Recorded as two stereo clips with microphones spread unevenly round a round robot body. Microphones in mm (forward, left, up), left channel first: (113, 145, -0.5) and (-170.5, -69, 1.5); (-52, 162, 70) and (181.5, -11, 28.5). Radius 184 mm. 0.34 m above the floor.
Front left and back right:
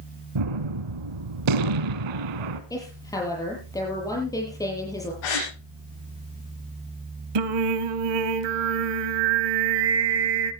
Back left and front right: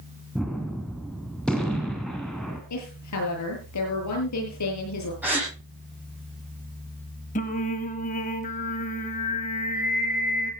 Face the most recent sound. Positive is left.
turn(degrees=-145)